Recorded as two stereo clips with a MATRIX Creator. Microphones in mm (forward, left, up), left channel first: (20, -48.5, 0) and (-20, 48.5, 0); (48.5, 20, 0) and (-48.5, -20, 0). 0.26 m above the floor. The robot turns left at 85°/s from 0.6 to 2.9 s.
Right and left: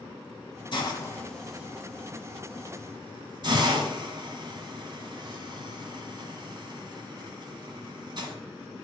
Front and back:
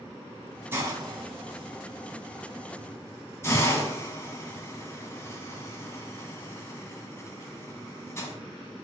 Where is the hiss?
90° right, 1.3 m; by 8.3 s 80° left, 1.3 m.